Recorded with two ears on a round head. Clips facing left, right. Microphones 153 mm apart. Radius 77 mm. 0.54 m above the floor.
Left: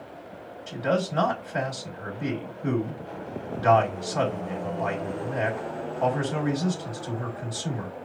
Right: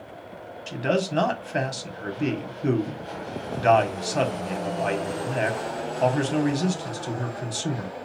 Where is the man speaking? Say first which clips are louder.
Right 1 dB; 35° right (ahead or behind), 1.4 m.